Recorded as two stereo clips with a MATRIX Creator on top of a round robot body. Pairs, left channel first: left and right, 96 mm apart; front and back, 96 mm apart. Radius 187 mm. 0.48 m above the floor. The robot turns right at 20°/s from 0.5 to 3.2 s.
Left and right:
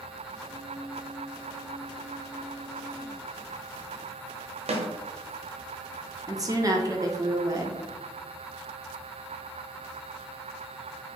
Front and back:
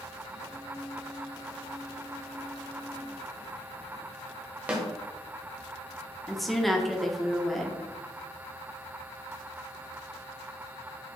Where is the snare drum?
105° right, 0.8 m.